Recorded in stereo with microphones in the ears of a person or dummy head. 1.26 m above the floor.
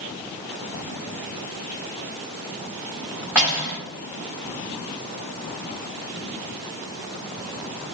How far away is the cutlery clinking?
About 1.0 m.